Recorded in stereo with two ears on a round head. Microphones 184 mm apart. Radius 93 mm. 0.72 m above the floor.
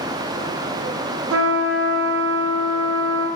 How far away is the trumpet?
About 0.9 m.